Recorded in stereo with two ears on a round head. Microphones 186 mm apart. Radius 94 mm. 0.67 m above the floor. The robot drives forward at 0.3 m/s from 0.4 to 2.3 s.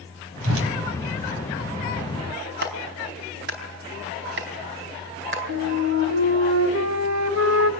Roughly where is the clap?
Right.